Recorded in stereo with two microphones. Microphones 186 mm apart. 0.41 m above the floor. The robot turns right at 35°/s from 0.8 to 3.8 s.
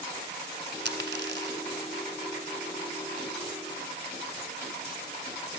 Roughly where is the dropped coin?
Right.